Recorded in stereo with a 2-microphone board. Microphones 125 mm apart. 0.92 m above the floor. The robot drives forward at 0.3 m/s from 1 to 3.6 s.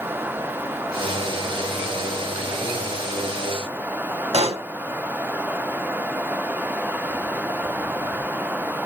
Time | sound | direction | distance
4.3 | a pop | 55° right (ahead or behind) | 0.8 m